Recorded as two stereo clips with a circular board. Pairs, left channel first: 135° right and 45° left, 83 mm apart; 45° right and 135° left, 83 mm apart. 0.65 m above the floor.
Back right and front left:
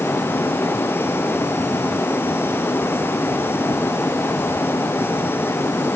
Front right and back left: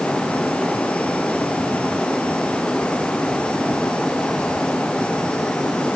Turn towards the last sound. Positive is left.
No sound to turn to.